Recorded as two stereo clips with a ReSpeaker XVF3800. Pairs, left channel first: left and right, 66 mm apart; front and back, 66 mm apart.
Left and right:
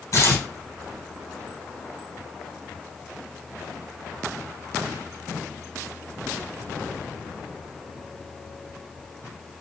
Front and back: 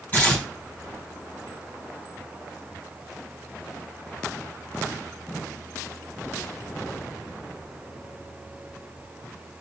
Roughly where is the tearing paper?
Left.